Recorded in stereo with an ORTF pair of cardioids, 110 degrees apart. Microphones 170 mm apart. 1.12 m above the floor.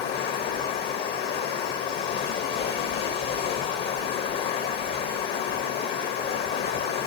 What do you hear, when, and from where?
0.0 s running water: 65° left, 1.4 m